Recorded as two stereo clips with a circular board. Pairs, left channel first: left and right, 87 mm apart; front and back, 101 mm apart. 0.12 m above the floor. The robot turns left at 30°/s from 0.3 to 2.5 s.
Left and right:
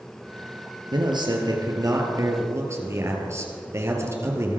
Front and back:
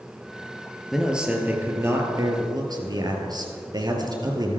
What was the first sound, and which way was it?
A man speaking, 95° right.